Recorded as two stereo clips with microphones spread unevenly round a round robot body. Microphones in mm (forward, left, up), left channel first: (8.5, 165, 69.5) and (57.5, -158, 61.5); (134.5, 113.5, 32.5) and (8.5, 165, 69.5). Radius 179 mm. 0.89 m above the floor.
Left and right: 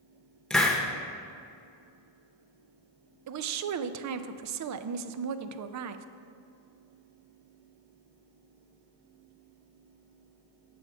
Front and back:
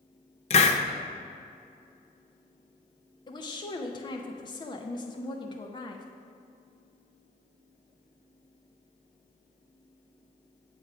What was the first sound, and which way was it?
A hiss, 15° left.